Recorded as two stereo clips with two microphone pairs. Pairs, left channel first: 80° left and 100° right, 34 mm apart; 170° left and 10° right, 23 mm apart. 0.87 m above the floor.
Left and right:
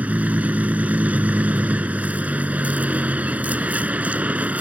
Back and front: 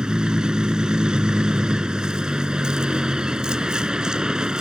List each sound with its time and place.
0.0 s a vehicle: 65° right